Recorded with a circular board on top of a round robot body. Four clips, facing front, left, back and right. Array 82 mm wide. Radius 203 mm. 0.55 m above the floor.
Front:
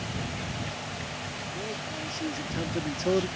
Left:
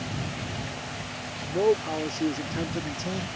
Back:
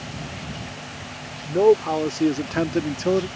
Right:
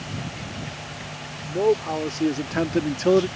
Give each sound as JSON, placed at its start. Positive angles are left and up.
{"t": 1.4, "sound": "a man speaking", "azimuth_deg": -175}